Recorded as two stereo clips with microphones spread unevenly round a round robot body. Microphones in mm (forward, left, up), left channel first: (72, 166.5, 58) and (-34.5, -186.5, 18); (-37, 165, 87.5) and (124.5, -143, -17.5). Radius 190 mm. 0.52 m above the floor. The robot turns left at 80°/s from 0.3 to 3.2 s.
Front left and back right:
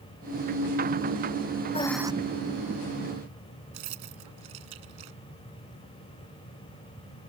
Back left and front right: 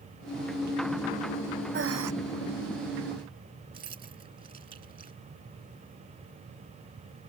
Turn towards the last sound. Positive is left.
turn(degrees=-135)